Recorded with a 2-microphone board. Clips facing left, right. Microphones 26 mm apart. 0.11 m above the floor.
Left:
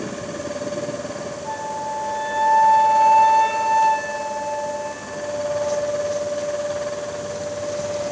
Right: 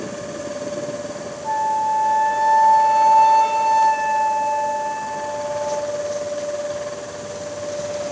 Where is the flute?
50° right (ahead or behind), 4 m.